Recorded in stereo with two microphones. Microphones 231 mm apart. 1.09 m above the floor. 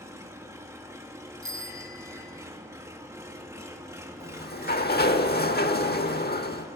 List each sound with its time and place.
0.0 s an engine running: 10° right (ahead or behind), 1.6 m
1.4 s a bicycle bell: 65° left (ahead or behind), 3 m
4.2 s a sliding door: 45° left (ahead or behind), 1.0 m